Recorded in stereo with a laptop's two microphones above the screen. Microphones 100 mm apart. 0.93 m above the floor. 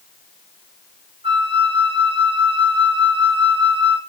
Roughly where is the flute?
Right.